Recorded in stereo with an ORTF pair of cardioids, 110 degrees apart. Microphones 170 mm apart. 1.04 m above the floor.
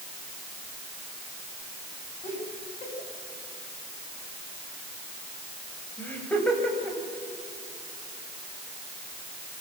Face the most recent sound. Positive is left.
turn(degrees=0)